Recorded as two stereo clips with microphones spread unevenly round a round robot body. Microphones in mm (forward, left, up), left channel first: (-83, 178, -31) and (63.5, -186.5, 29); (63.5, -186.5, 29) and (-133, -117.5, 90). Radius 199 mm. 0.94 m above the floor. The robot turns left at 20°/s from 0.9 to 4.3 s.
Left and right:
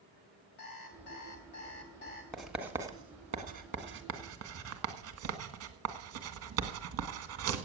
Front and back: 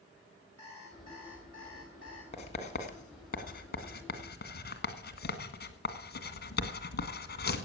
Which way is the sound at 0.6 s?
115° left.